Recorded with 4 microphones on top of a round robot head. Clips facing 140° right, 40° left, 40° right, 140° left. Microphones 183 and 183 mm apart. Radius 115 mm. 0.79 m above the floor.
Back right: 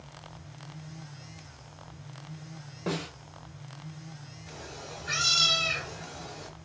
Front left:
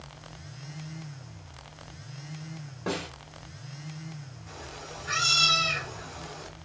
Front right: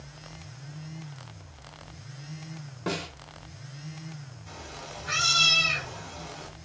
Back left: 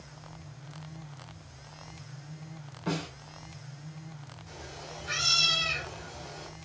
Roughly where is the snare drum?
Ahead right.